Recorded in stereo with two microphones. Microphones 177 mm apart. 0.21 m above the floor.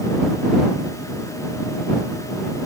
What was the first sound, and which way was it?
Only background noise.